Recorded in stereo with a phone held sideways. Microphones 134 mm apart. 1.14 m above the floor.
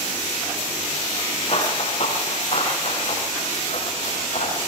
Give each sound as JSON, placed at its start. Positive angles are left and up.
{"t": 1.5, "sound": "running footsteps", "side_deg": 50, "distance_m": 8.5}